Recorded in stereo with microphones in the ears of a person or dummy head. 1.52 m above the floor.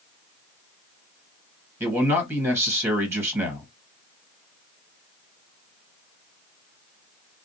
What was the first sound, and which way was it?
A man speaking, 15° right (ahead or behind).